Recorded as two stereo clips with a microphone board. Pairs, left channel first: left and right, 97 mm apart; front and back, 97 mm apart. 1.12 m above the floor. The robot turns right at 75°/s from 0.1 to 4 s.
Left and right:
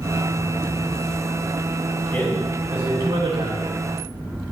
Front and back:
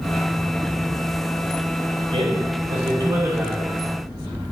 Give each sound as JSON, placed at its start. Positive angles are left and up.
{"t": 2.1, "sound": "a man speaking", "azimuth_deg": 155, "distance_m": 6.0}